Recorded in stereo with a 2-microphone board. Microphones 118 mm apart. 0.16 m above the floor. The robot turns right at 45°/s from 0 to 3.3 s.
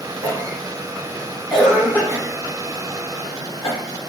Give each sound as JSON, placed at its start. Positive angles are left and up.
{"t": 0.2, "sound": "a cough", "side_deg": -15, "distance_m": 1.2}